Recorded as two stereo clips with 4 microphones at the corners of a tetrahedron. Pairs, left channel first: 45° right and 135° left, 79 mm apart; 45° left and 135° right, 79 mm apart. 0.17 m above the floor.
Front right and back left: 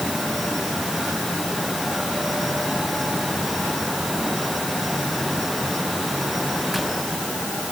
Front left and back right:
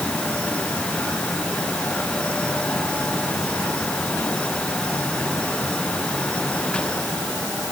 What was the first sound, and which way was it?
Only background noise.